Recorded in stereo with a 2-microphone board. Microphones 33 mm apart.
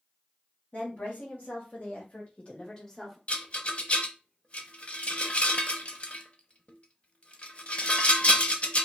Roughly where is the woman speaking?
Left.